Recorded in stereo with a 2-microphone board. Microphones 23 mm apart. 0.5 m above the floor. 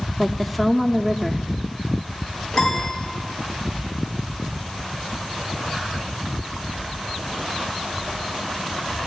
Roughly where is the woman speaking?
Centre.